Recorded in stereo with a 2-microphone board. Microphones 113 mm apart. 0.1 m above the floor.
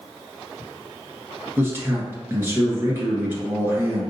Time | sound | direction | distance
1.6 | a man speaking | 20° right (ahead or behind) | 1.5 m